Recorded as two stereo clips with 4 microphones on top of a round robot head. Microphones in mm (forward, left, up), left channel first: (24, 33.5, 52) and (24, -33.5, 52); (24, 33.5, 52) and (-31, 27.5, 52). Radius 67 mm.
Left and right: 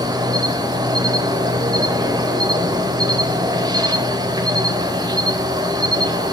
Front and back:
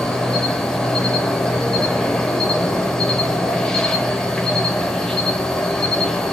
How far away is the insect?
About 1.0 m.